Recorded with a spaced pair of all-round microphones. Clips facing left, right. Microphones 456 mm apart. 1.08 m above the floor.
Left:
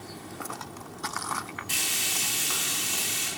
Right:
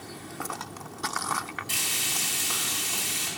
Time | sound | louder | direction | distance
1.7 | frying | even | 55° right (ahead or behind) | 1.6 m